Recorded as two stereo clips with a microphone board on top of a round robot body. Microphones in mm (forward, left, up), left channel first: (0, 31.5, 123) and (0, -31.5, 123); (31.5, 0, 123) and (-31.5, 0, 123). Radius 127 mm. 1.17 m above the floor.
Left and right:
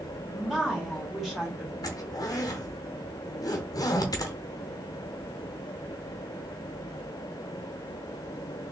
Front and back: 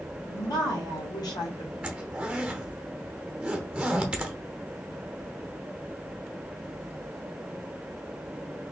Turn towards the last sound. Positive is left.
turn(degrees=105)